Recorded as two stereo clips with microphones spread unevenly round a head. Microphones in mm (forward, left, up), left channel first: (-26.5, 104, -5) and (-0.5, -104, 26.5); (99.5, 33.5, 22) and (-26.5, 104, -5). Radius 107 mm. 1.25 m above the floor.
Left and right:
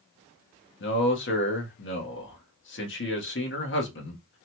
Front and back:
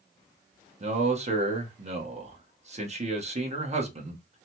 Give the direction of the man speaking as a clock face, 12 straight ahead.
8 o'clock.